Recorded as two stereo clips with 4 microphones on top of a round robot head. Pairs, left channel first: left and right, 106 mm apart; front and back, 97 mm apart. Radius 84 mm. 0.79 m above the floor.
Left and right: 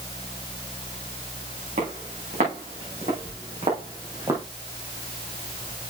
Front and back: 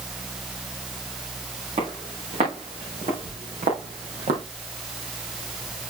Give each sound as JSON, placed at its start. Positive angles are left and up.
{"t": 1.8, "sound": "footsteps", "azimuth_deg": -125, "distance_m": 5.5}